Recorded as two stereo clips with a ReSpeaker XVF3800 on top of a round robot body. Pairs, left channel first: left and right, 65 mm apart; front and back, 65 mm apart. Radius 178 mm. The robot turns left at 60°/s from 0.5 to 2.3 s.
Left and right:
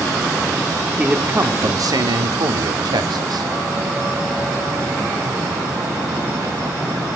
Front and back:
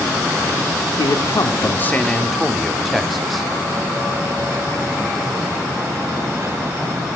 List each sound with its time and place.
1.0 s a man speaking: 10° right, 2 m; by 3.5 s 90° right, 2 m